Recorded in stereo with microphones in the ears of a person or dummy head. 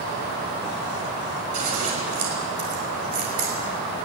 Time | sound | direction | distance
1.5 | scissors | 35° right (ahead or behind) | 5 m